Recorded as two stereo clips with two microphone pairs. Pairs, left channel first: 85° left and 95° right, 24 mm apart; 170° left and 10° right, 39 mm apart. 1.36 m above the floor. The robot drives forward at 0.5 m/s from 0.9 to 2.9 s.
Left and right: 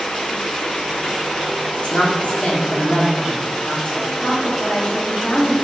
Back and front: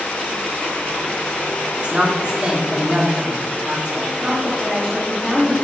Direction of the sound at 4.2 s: 75° left.